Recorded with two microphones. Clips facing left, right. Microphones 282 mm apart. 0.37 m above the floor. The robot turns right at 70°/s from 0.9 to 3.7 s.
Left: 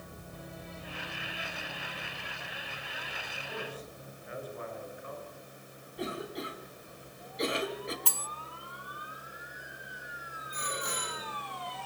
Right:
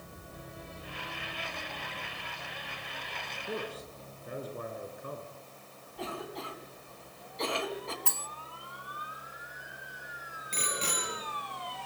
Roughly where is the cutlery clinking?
Left.